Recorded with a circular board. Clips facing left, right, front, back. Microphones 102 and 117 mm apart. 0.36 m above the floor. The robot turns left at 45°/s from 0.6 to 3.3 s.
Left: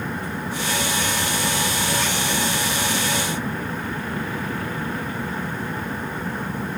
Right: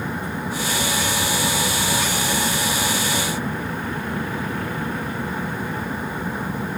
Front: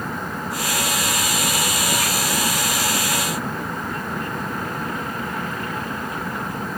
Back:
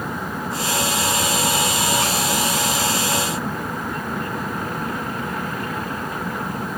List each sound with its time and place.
Only background noise.